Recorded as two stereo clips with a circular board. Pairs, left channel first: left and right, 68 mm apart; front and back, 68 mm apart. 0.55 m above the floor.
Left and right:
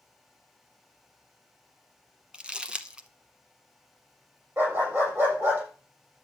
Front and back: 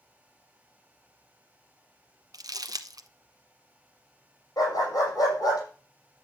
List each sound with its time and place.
2.3 s crumpling: 165° right, 0.9 m
4.6 s a dog barking: 35° right, 6.5 m